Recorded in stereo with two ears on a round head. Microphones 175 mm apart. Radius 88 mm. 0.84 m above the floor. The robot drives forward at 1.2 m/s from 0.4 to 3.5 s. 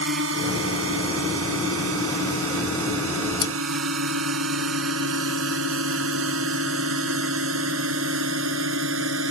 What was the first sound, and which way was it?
A drone, 70° right (ahead or behind).